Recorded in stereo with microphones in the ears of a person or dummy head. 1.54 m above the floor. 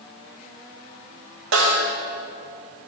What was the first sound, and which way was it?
A snare drum, 65° right (ahead or behind).